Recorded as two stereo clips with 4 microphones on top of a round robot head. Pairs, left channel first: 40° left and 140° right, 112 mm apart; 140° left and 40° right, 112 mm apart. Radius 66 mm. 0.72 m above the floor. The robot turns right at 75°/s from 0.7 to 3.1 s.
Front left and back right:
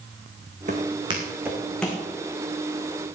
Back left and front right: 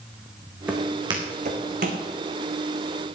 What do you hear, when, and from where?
0.7 s footsteps: 115° right, 3 m; by 2.0 s 30° right, 2.5 m